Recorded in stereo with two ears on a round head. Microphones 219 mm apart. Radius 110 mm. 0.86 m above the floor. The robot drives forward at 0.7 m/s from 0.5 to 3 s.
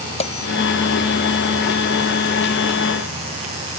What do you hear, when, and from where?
0.2 s a bell: 25° left (ahead or behind)